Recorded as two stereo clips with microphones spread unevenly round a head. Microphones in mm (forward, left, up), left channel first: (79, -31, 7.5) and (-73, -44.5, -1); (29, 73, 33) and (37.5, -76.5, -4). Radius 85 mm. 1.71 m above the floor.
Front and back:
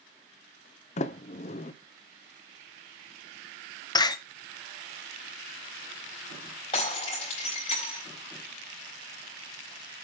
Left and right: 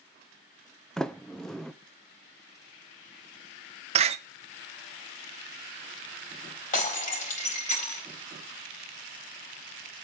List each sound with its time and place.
1.0 s a sliding door: 25° left, 0.6 m
4.0 s a door slam: 40° right, 0.9 m
6.7 s breaking glass: 65° left, 4 m